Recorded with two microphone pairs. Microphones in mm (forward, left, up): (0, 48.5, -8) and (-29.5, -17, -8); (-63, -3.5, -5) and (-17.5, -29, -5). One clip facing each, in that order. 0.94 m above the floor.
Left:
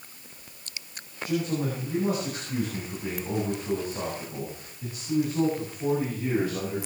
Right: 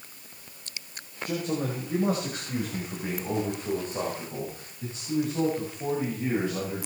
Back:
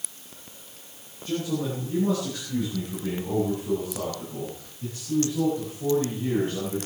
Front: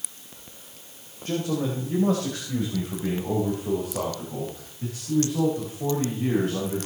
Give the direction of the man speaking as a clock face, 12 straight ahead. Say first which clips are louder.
Left 2 dB, front 1 dB; 2 o'clock.